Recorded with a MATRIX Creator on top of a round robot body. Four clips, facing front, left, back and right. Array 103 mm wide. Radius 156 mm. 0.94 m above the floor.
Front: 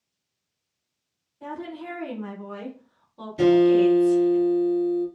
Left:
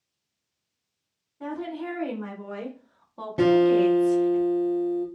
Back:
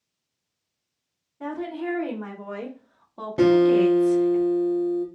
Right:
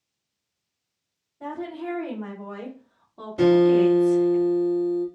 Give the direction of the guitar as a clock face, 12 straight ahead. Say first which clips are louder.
Right 2 dB, even; 7 o'clock.